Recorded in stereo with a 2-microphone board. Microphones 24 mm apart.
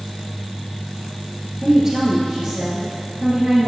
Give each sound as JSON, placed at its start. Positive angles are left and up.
{"t": 1.6, "sound": "a woman speaking", "side_deg": -25, "distance_m": 2.0}